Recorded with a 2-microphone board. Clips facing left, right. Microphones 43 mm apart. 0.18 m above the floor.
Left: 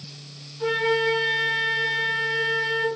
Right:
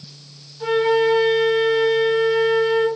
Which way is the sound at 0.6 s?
10° right (ahead or behind).